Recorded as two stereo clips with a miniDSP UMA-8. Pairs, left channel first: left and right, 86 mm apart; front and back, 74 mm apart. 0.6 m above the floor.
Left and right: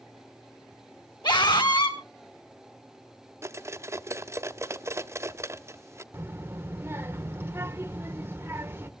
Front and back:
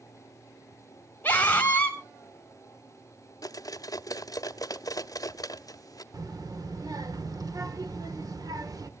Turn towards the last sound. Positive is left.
turn(degrees=-150)